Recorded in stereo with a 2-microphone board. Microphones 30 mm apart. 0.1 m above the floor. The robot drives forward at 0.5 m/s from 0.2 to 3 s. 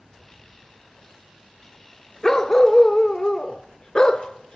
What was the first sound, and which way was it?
A dog barking, 25° left (ahead or behind).